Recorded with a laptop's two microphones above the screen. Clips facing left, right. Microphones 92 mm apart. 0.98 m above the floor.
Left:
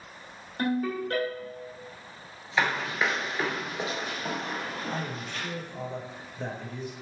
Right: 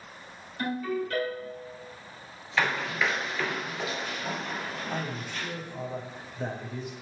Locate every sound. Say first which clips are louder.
0.6 s a ringtone: left 2 dB; 45° left (ahead or behind), 1.9 m
2.6 s running footsteps: left 1 dB; 15° left (ahead or behind), 1.1 m; by 5.5 s 40° left (ahead or behind), 1.6 m
4.9 s a man speaking: even; 5° right (ahead or behind), 0.6 m